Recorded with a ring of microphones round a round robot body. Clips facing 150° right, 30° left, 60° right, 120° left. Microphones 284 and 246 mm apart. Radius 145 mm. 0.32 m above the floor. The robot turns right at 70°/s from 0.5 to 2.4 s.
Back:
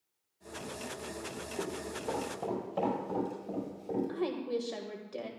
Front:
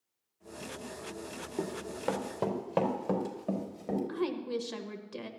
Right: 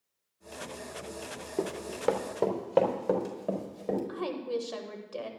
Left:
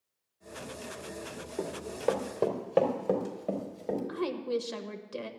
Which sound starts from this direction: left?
A woman speaking, at 4.1 s.